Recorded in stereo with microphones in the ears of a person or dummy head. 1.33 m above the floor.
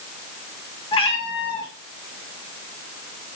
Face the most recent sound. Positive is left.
turn(degrees=30)  # may be behind; listen again after turning